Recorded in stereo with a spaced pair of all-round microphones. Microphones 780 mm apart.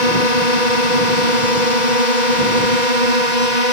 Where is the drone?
60° right (ahead or behind).